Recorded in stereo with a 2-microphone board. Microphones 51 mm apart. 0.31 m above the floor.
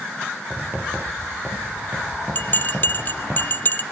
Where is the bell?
40° left (ahead or behind), 0.5 m.